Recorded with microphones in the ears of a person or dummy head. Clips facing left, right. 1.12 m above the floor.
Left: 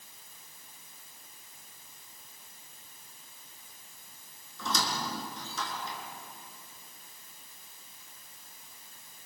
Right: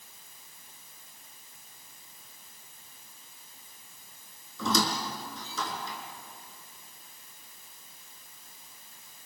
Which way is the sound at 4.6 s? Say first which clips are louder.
Right 5 dB; 65° right (ahead or behind).